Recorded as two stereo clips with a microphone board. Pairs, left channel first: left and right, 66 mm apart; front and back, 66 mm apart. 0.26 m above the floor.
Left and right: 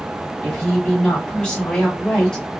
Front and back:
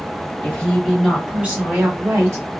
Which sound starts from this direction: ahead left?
A woman speaking, at 0.4 s.